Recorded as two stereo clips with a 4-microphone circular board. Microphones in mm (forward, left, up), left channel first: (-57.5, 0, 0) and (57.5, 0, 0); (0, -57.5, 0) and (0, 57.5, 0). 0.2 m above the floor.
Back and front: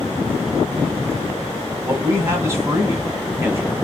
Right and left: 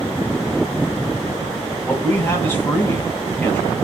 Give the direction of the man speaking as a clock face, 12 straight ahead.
1 o'clock.